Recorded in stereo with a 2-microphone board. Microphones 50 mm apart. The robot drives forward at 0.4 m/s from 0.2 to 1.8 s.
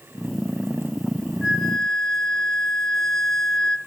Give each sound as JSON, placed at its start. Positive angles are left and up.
{"t": 1.4, "sound": "a flute", "side_deg": 5, "distance_m": 2.0}